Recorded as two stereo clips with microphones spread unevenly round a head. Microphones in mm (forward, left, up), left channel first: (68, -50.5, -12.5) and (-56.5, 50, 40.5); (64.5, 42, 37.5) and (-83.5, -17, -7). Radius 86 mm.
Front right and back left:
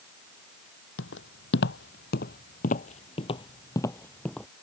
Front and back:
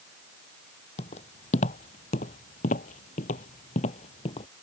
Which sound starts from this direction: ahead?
Footsteps, at 1.0 s.